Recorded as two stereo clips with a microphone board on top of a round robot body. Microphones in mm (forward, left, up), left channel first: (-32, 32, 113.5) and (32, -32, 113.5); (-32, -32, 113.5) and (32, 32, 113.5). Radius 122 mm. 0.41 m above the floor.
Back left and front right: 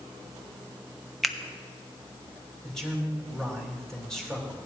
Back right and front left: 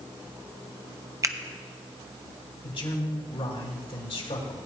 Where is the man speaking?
140° right, 2.5 m.